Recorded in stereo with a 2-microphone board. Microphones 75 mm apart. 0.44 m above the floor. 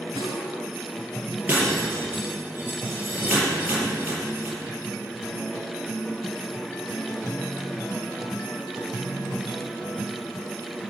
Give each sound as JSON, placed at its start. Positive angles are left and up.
{"t": 0.2, "sound": "a snare drum", "side_deg": -80, "distance_m": 6.0}
{"t": 1.5, "sound": "breaking glass", "side_deg": -25, "distance_m": 6.5}